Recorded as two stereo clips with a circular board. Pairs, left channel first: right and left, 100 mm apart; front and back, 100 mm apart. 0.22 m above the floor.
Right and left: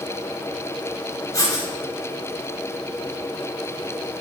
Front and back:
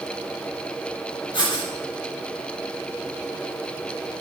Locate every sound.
1.3 s writing: 40° right, 7.5 m